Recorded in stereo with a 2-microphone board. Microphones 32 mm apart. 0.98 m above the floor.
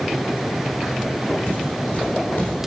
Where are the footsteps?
60° left (ahead or behind), 3.5 m; by 2.7 s 55° left (ahead or behind), 2.5 m.